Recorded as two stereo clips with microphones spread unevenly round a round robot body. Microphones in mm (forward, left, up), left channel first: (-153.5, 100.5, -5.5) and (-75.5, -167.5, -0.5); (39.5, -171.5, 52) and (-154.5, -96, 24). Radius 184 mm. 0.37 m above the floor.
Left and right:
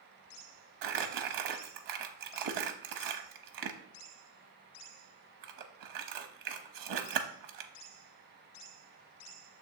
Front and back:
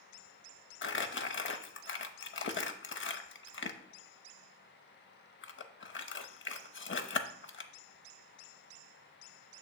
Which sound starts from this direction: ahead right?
Crumpling, at 0.8 s.